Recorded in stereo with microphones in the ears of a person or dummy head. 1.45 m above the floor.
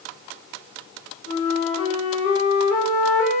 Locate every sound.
1.3 s a flute: 60° left (ahead or behind), 0.6 m